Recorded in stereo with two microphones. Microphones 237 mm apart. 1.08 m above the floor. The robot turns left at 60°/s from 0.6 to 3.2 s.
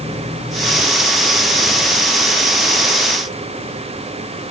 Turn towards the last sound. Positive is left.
No sound to turn to.